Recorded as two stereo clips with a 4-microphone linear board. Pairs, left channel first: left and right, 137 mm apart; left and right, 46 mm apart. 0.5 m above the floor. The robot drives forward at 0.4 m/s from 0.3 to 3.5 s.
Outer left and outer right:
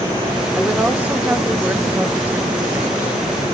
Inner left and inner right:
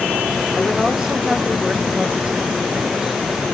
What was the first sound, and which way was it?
A woman speaking, 10° right (ahead or behind).